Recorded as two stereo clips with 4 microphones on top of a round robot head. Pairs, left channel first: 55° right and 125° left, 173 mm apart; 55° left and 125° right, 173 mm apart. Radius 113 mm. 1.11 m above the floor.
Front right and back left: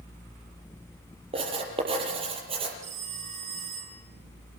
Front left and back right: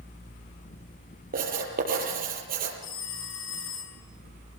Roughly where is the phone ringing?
Left.